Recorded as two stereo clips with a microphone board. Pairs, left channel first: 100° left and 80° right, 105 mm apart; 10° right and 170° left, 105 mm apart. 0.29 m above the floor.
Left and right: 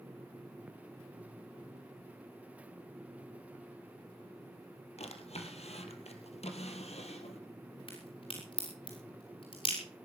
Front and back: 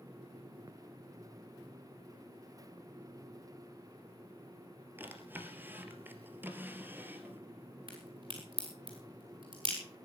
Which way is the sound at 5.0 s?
100° left.